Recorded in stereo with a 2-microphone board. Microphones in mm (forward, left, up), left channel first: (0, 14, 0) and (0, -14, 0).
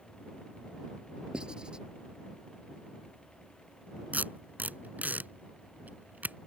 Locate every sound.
1.3 s writing: 30° right (ahead or behind)
4.1 s tape being pulled: 75° right (ahead or behind)